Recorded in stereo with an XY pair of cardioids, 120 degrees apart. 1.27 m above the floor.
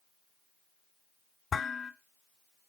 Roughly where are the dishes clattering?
Ahead left.